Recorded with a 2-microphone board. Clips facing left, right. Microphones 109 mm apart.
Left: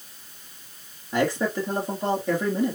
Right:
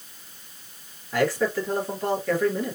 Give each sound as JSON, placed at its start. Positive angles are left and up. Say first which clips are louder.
{"t": 1.1, "sound": "a man speaking", "louder": "right 1 dB", "side_deg": 20, "distance_m": 3.0}